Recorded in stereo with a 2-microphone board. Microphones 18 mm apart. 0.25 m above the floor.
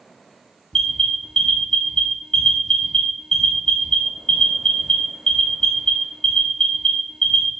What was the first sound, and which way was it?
An alarm, 45° left (ahead or behind).